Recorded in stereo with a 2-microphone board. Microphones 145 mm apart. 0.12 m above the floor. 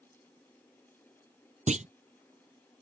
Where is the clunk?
55° right (ahead or behind).